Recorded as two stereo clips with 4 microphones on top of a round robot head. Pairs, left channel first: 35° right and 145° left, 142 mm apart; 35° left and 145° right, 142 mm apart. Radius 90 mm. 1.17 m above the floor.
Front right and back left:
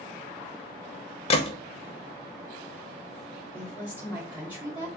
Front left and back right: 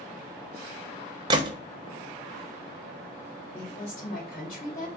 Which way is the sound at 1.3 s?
85° right.